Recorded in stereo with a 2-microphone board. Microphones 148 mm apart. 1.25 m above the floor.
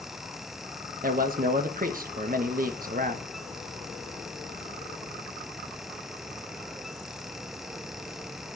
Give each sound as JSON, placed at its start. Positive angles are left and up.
{"t": 1.0, "sound": "a man speaking", "side_deg": -65, "distance_m": 1.4}